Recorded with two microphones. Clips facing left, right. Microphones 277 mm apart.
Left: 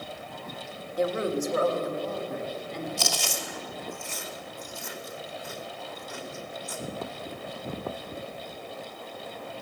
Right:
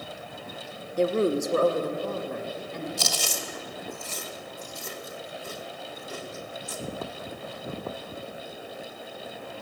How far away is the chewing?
About 2 m.